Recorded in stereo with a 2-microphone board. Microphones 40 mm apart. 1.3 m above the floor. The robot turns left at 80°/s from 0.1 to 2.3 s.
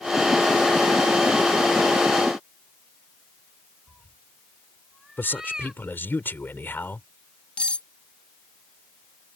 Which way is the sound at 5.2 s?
60° left (ahead or behind).